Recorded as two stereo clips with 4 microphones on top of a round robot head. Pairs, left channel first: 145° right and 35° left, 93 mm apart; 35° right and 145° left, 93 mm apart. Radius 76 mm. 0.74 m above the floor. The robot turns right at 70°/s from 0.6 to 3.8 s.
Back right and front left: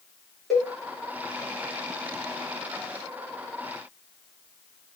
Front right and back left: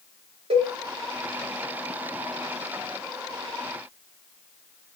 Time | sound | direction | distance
0.5 | a cowbell | 125° left | 1.3 m